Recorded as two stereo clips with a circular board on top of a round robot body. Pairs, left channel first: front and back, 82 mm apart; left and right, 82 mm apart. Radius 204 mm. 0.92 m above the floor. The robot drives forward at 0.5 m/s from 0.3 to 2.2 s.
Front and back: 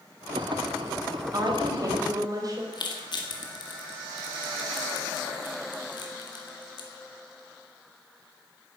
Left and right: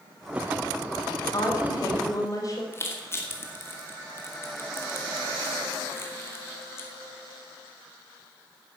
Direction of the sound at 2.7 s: 30° left.